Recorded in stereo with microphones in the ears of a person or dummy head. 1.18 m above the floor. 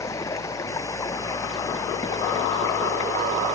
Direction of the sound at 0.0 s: 20° left (ahead or behind).